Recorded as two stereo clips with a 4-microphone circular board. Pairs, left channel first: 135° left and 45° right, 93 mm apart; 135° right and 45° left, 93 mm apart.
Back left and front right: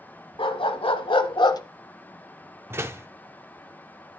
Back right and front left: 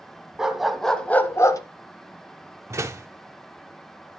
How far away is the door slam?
About 0.7 m.